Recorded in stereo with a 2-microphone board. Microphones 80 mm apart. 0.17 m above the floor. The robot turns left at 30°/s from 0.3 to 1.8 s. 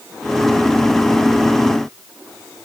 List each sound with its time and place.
Only background noise.